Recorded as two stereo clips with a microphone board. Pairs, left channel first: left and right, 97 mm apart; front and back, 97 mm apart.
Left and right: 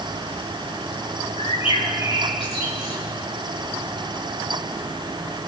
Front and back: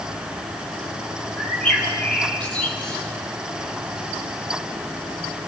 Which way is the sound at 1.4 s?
80° left.